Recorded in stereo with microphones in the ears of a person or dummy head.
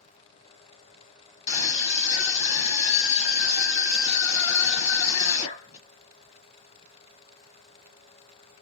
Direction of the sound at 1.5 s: 35° left (ahead or behind).